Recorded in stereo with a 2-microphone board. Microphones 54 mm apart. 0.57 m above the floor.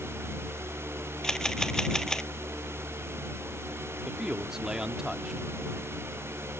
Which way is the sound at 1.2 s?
10° left (ahead or behind).